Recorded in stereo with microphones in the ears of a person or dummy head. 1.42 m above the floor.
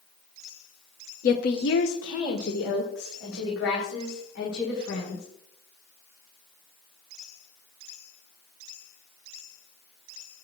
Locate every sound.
1.2 s a woman speaking: 45° left (ahead or behind), 1.0 m; by 5.2 s 75° left (ahead or behind), 5.5 m